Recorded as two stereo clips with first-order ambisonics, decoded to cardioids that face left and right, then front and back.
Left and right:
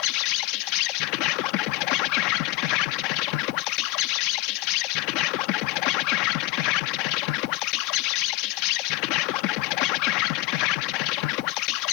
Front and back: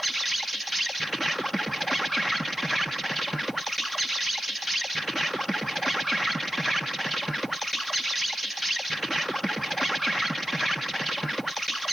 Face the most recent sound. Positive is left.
turn(degrees=90)